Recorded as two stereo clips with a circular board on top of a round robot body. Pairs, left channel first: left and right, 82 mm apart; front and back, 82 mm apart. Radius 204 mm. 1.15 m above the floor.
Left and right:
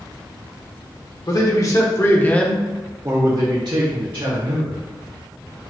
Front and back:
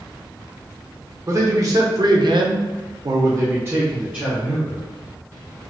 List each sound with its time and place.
1.3 s a man speaking: 130° left, 1.3 m; by 4.8 s 100° right, 1.5 m